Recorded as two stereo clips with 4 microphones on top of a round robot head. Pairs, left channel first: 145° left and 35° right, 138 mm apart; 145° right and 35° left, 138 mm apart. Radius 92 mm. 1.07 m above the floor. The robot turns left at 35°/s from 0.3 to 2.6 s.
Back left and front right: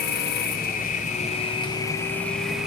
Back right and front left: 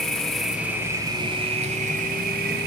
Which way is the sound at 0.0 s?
130° left.